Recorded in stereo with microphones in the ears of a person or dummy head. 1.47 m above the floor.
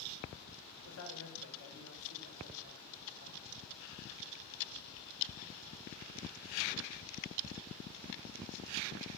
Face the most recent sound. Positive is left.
turn(degrees=85)